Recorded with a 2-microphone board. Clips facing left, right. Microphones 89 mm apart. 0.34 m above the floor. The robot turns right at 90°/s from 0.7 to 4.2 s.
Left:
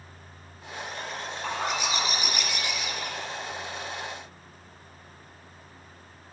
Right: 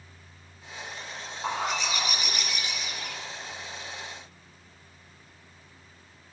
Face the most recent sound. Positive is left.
turn(degrees=-135)